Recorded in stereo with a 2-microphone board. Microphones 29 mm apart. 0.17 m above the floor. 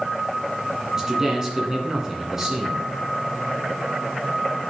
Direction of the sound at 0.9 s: 20° right (ahead or behind).